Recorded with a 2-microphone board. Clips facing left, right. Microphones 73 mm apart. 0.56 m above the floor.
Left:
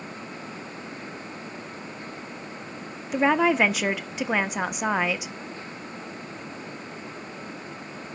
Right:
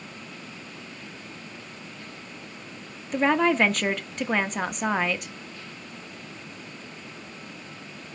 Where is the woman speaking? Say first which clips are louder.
Left 1 dB; 5° left (ahead or behind), 0.6 m.